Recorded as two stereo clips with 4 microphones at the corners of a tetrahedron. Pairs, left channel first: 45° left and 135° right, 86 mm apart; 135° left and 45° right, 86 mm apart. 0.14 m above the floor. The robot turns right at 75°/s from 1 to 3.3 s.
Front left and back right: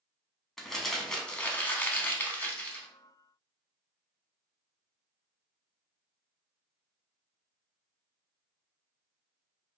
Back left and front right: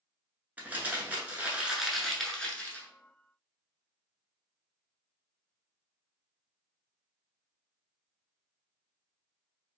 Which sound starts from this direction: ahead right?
Crumpling, at 0.6 s.